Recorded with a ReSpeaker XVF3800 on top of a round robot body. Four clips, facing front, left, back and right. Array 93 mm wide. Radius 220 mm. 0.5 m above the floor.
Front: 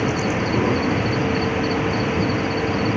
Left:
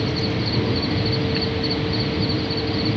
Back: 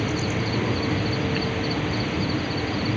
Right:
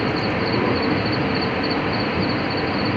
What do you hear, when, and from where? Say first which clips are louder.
0.0 s an insect: right 3 dB, front 5 dB; 55° right